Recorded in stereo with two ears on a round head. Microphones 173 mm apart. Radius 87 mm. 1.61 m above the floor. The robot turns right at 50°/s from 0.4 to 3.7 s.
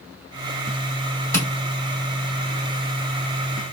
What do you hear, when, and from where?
1.3 s tapping: 15° left (ahead or behind), 1.3 m